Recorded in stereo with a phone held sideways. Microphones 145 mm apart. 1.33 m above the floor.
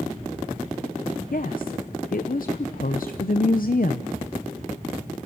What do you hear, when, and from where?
1.3 s a woman speaking: 65° left (ahead or behind), 0.8 m